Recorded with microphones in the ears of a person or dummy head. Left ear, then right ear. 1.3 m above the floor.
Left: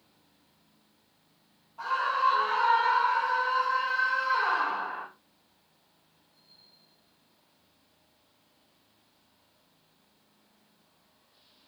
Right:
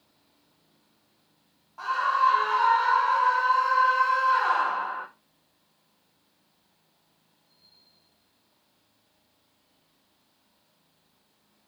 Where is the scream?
60° right (ahead or behind), 4 m; by 5.1 s 50° right (ahead or behind), 2 m.